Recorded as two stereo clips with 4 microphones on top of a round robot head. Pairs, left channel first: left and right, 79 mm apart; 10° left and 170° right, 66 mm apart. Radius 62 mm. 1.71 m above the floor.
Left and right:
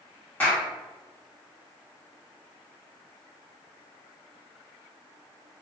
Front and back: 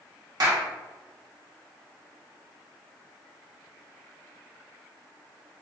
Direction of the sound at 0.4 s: 165° left.